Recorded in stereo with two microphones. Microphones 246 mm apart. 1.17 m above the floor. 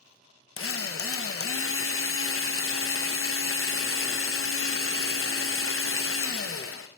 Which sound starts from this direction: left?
A drill, at 0.6 s.